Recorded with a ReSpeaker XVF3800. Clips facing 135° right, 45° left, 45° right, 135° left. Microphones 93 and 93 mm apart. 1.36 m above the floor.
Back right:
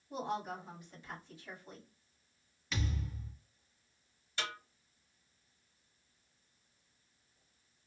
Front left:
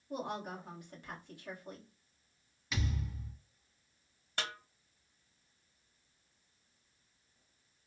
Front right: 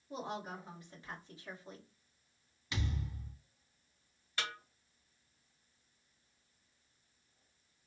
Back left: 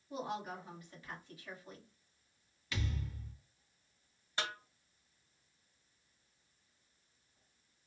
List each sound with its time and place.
0.1 s a woman speaking: 15° left, 1.5 m
2.7 s a thud: 30° right, 1.3 m
4.4 s a snare drum: 70° left, 1.0 m